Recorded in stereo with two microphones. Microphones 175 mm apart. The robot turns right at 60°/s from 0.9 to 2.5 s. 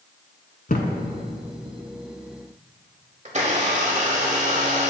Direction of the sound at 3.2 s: 40° right (ahead or behind).